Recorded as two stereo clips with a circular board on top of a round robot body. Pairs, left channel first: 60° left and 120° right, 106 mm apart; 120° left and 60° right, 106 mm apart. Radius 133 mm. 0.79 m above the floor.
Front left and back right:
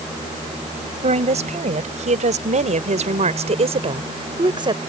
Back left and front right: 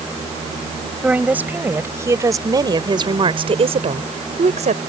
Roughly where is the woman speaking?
Behind right.